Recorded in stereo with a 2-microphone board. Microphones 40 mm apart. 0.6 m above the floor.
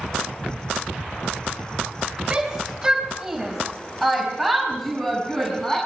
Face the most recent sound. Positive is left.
turn(degrees=10)  # may be behind; listen again after turning